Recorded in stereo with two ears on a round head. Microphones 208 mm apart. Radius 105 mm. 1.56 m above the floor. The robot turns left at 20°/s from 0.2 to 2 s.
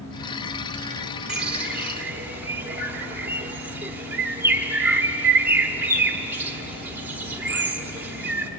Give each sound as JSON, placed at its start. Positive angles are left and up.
{"t": 1.3, "sound": "a bird", "side_deg": -5, "distance_m": 1.1}